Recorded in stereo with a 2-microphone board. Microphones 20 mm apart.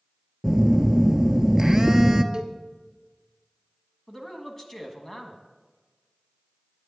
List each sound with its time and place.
0.4 s a phone buzzing: 25° right (ahead or behind), 0.7 m
2.3 s a cowbell: 40° right (ahead or behind), 1.2 m
4.1 s a man speaking: 20° left (ahead or behind), 1.4 m